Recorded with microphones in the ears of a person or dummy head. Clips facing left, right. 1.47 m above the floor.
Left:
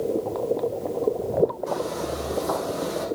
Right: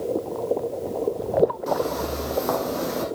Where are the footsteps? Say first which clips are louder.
Right 3 dB; 70° right (ahead or behind), 4.5 m; by 3.0 s 75° right (ahead or behind), 5 m.